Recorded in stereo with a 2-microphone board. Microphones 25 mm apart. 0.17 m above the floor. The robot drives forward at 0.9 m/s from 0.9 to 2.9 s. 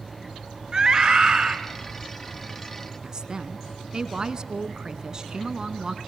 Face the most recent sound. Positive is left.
turn(degrees=-30)  # may be behind; listen again after turning